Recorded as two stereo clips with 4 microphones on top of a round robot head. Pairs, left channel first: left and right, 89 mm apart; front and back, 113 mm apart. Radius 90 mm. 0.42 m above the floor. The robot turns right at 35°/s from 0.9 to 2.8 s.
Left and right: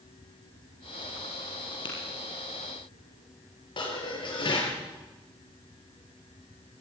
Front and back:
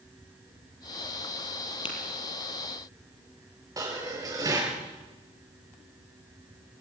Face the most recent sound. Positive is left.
turn(degrees=120)